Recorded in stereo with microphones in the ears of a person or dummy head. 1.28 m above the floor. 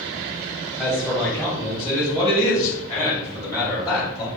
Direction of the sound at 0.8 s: Centre (ahead or behind).